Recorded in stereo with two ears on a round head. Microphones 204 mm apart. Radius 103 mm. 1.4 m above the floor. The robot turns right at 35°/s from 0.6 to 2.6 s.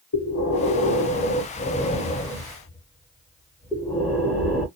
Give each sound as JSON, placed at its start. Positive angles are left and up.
{"t": 0.1, "sound": "breathing", "azimuth_deg": 110, "distance_m": 1.3}